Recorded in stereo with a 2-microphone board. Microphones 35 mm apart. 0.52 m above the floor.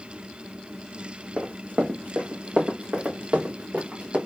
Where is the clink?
No clink in this recording.